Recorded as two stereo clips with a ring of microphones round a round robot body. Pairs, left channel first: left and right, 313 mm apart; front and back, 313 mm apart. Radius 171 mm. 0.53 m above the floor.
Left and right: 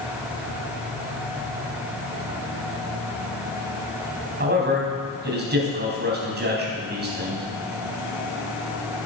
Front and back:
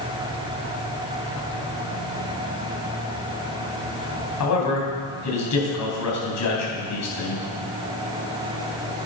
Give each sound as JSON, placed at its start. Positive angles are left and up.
{"t": 4.4, "sound": "a man speaking", "azimuth_deg": -35, "distance_m": 4.0}